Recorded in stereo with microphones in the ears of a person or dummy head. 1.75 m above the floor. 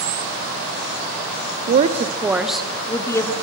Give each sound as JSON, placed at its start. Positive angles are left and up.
{"t": 1.7, "sound": "a woman speaking", "side_deg": -45, "distance_m": 0.7}